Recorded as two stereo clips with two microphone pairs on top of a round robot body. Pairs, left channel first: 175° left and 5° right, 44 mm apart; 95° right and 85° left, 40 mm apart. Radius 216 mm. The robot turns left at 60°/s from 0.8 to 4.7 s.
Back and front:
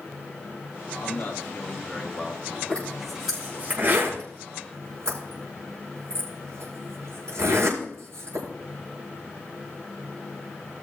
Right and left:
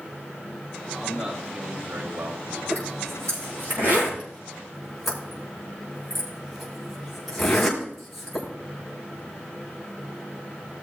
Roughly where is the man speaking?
Behind.